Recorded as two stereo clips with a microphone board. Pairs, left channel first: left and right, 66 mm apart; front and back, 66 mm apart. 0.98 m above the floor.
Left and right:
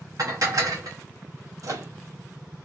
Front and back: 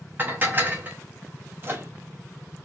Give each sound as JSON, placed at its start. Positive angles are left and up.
{"t": 0.2, "sound": "dishes clattering", "azimuth_deg": -120, "distance_m": 0.7}
{"t": 1.6, "sound": "a microwave", "azimuth_deg": -120, "distance_m": 0.7}